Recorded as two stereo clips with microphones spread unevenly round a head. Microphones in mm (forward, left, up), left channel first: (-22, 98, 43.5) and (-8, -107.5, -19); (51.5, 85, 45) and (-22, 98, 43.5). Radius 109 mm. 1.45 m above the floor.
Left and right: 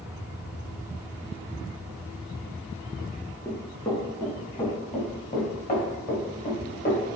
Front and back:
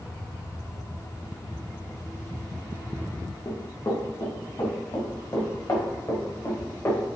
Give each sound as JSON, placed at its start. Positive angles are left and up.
{"t": 3.5, "sound": "running footsteps", "azimuth_deg": 30, "distance_m": 4.0}